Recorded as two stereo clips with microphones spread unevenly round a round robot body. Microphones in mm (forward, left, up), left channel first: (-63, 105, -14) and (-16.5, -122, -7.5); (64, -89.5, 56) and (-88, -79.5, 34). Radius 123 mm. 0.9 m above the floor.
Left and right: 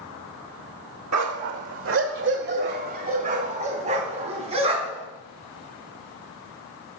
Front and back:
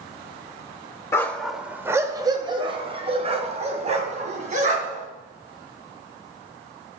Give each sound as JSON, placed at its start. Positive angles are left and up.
{"t": 1.1, "sound": "a dog barking", "azimuth_deg": -75, "distance_m": 1.0}